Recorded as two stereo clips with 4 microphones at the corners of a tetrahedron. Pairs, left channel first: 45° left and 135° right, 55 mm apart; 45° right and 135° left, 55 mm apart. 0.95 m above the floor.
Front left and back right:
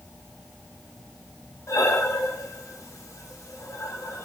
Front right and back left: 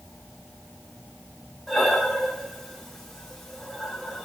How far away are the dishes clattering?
No dishes clattering in this recording.